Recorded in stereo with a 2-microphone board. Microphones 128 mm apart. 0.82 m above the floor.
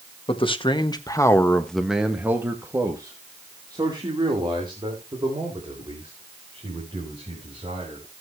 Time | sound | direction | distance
0.3 | a man speaking | 45° left (ahead or behind) | 1.4 m